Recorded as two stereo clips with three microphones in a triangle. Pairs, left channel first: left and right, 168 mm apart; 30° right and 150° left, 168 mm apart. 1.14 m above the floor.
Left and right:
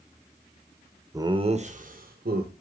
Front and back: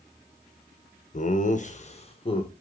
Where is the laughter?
25° right, 0.9 m; by 2.5 s 85° right, 1.5 m.